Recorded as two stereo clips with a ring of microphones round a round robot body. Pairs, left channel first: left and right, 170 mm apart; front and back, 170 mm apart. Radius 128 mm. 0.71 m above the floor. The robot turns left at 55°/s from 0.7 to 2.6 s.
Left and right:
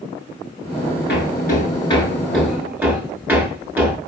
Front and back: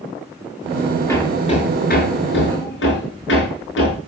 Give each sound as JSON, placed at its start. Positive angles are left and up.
{"t": 1.1, "sound": "hammering", "azimuth_deg": 75, "distance_m": 6.0}